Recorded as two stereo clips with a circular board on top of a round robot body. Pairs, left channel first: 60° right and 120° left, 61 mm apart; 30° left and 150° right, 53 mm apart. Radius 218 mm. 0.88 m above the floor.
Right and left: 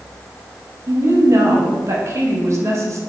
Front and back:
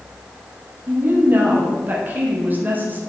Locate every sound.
0.9 s a woman speaking: 155° left, 2.5 m